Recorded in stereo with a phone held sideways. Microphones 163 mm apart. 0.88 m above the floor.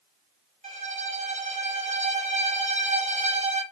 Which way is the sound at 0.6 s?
50° right (ahead or behind).